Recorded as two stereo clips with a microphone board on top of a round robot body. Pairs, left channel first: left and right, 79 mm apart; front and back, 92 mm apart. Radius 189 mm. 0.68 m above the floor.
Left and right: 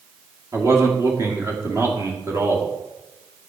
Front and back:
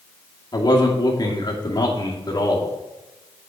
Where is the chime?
No chime in this recording.